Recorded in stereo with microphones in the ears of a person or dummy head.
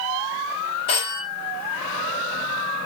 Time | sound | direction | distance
0.9 | a phone ringing | 25° left (ahead or behind) | 0.6 m